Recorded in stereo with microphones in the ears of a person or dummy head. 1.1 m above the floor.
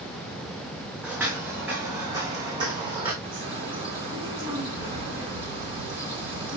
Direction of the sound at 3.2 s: 20° right (ahead or behind).